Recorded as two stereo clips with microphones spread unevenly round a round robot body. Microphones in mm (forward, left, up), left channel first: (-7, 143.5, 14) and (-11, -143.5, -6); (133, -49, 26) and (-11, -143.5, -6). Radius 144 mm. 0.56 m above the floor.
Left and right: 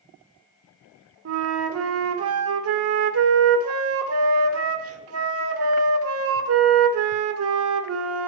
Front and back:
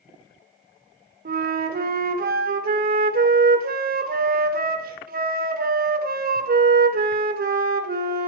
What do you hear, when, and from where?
1.2 s a flute: 125° right, 1.0 m